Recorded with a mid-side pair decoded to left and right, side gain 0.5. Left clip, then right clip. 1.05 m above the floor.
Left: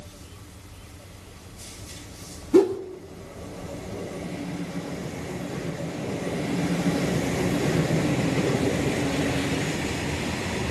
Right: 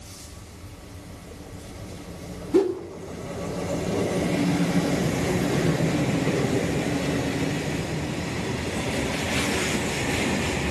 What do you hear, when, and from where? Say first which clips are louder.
2.5 s a whoosh: left 3 dB; 20° left, 3.5 m